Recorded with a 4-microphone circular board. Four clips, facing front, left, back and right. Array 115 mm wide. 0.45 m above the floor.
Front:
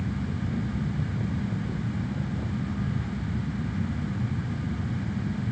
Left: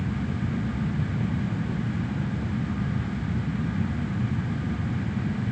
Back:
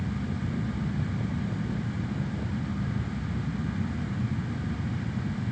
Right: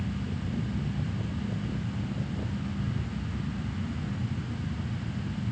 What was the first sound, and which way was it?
Only background noise.